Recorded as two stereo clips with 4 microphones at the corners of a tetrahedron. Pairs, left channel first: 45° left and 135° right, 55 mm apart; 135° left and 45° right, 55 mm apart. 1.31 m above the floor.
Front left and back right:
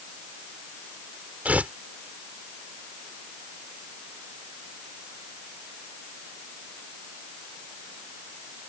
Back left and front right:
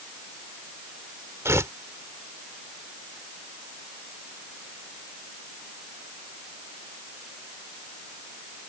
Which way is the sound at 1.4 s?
75° right.